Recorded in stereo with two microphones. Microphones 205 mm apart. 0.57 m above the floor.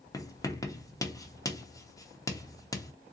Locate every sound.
0.1 s writing: 15° left (ahead or behind), 0.6 m